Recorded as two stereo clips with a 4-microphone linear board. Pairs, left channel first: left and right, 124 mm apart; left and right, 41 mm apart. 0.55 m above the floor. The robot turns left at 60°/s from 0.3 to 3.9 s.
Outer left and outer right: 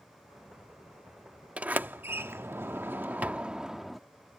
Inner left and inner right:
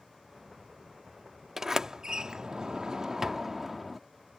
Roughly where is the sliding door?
Centre.